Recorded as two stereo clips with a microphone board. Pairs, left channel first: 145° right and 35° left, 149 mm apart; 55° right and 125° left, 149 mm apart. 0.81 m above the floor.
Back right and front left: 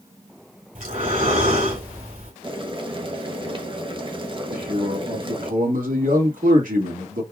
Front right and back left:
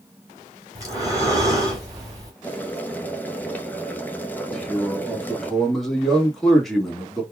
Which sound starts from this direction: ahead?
Boiling, at 2.4 s.